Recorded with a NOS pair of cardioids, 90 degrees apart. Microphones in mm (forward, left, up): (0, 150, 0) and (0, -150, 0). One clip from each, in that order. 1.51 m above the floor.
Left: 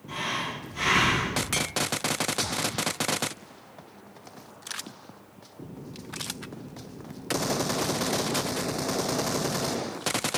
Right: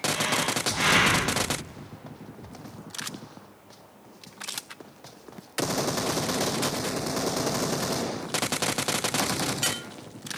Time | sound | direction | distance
0.1 | breathing | 40° right | 2.5 m